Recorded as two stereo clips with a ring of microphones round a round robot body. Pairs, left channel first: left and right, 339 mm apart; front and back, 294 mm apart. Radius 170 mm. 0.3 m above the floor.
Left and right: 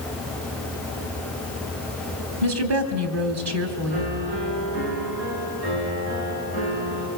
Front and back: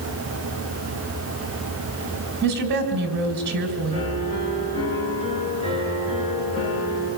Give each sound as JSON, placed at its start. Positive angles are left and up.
{"t": 2.4, "sound": "a woman speaking", "azimuth_deg": -130, "distance_m": 2.0}
{"t": 3.9, "sound": "a piano", "azimuth_deg": -70, "distance_m": 5.0}